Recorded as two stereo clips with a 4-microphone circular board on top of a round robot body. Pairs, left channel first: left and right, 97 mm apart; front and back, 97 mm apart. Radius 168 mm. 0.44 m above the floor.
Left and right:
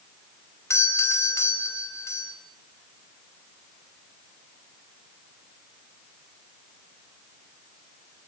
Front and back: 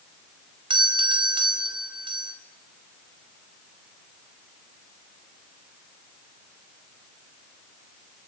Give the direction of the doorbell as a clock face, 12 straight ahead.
7 o'clock.